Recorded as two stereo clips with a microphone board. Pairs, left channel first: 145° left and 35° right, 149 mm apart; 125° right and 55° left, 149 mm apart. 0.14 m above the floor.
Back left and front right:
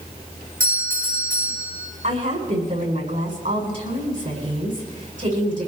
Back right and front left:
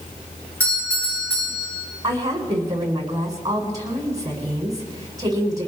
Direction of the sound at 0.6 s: 45° right.